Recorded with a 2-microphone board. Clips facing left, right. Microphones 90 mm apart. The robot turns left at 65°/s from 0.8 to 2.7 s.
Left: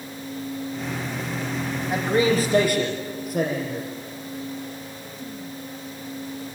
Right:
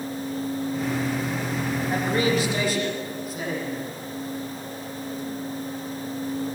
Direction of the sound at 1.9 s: 175° left.